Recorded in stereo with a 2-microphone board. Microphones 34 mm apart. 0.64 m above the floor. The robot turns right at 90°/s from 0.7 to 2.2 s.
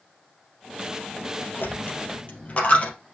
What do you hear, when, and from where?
1.6 s a dropped coin: 80° left, 2.5 m; by 2.9 s 45° left (ahead or behind), 2.5 m